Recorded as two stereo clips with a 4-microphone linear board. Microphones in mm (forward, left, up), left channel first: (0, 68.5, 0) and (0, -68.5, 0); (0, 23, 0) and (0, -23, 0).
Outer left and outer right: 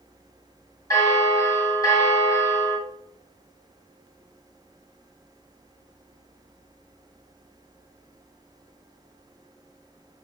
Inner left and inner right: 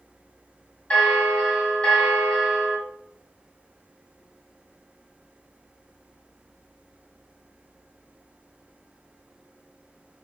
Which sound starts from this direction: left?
A bell, at 0.9 s.